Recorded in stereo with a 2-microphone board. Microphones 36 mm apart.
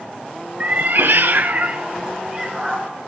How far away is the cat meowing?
About 0.9 m.